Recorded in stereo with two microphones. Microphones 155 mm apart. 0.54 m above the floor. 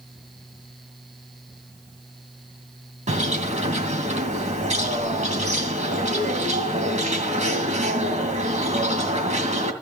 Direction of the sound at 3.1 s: 55° right (ahead or behind).